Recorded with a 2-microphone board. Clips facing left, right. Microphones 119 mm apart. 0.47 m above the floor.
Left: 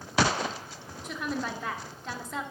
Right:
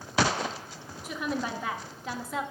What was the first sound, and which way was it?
A woman speaking, 5° right (ahead or behind).